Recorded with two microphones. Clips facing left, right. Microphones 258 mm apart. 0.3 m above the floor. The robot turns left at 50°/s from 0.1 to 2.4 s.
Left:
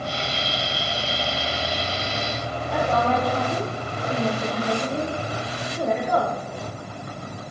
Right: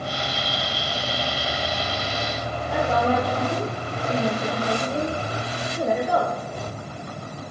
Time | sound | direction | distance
2.7 | a woman speaking | 10° right (ahead or behind) | 7 m